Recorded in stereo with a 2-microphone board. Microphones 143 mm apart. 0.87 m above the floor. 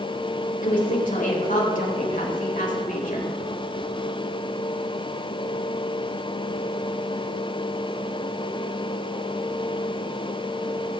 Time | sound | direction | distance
0.6 | a woman speaking | 70° left (ahead or behind) | 4 m